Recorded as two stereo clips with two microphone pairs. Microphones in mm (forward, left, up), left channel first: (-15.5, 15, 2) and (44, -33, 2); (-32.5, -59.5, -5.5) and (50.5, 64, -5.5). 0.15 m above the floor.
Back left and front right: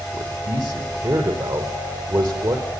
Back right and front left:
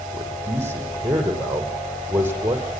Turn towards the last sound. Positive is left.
turn(degrees=-20)